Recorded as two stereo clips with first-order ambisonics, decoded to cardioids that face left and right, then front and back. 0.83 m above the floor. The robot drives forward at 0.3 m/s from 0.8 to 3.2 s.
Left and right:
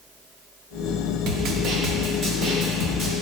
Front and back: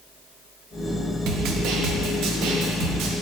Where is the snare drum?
135° right, 0.6 m; by 3.1 s 155° right, 1.1 m.